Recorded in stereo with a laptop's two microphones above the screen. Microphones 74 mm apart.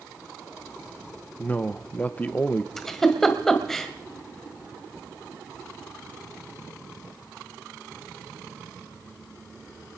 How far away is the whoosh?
No whoosh in this recording.